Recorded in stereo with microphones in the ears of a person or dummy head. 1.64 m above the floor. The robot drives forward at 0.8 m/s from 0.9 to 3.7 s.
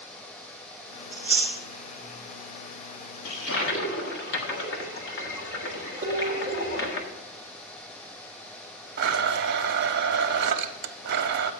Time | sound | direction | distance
1.1 | chewing | 15° right (ahead or behind) | 2 m
3.2 | a toilet flushing | 70° left (ahead or behind) | 1.5 m
6.0 | dishes clattering | 40° right (ahead or behind) | 2 m
9.0 | a blender | 65° right (ahead or behind) | 0.6 m